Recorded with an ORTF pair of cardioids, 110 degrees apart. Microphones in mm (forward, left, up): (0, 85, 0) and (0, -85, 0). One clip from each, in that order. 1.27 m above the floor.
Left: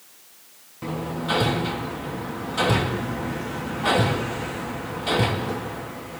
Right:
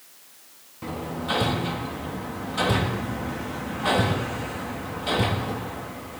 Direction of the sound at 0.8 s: 10° left.